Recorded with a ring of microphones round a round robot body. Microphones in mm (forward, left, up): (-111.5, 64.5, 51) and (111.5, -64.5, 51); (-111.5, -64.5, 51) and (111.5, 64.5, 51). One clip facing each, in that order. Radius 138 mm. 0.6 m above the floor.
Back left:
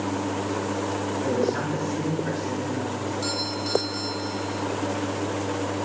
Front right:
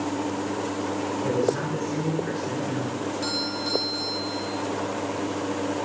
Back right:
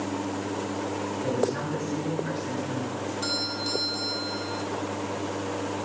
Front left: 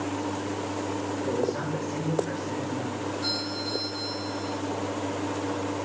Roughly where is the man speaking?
Behind right.